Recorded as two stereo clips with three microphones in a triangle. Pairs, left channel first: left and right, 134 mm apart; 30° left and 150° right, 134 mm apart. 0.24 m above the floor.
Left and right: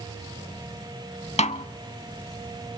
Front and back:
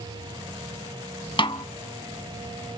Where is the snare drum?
70° left, 0.5 m.